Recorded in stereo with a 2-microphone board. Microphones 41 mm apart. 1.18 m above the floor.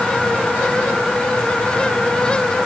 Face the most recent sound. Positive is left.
No sound to turn to.